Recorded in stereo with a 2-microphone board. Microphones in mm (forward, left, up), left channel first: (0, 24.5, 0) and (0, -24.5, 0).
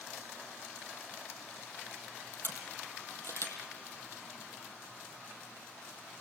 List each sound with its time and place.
2.4 s a camera shutter: 60° left (ahead or behind), 4 m